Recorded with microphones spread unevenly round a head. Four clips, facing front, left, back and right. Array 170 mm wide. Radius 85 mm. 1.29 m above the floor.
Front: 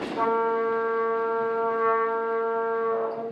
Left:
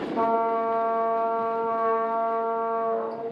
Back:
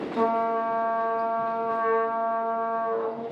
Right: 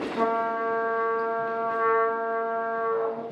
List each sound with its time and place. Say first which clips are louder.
0.1 s a trumpet: left 3 dB, even; 105° left, 1.0 m